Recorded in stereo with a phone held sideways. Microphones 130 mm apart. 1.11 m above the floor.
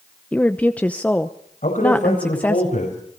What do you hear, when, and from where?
0.3 s a woman speaking: 10° left (ahead or behind), 0.8 m
1.6 s a man speaking: 75° left (ahead or behind), 5.5 m